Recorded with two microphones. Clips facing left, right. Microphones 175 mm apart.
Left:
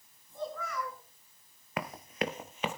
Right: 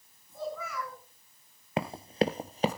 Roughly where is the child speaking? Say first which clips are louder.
Right 1 dB; centre.